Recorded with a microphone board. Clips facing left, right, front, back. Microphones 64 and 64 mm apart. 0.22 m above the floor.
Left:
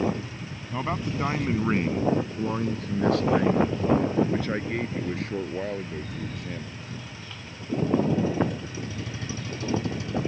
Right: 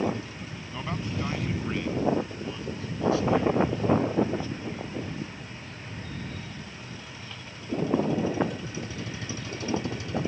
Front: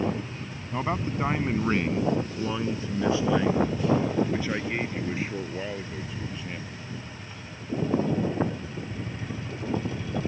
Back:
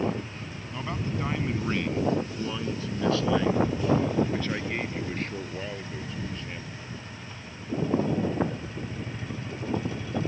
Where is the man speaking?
40° left; by 6.8 s 85° left.